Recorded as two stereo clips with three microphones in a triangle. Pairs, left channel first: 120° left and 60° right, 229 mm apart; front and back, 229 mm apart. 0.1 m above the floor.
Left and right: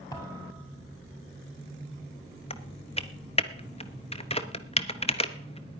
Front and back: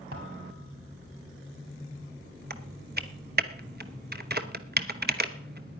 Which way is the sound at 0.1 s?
165° right.